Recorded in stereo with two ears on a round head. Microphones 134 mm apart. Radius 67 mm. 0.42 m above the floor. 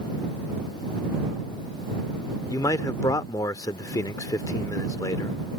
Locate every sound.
2.5 s a man speaking: 20° left (ahead or behind)